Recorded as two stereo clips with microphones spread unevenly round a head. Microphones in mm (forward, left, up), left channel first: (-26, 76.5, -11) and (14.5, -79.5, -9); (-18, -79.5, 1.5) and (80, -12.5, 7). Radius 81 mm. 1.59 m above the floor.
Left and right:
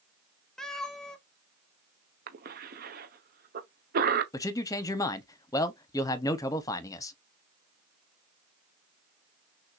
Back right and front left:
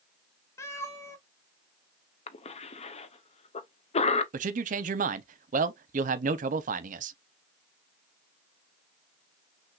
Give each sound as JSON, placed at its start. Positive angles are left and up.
{"t": 0.6, "sound": "a cat meowing", "azimuth_deg": -175, "distance_m": 0.8}
{"t": 2.3, "sound": "a cough", "azimuth_deg": -110, "distance_m": 0.9}
{"t": 4.3, "sound": "a man speaking", "azimuth_deg": 35, "distance_m": 0.6}